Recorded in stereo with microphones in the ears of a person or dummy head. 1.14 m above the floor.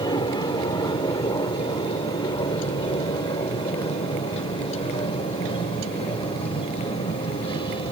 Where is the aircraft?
25° left (ahead or behind); by 7.9 s 30° left (ahead or behind).